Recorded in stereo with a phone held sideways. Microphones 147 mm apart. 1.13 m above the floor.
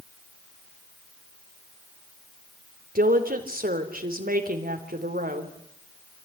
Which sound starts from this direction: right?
A woman speaking, at 3.0 s.